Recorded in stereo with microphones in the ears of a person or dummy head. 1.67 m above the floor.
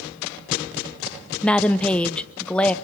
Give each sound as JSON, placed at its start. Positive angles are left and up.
{"t": 1.4, "sound": "a woman speaking", "side_deg": 10, "distance_m": 0.8}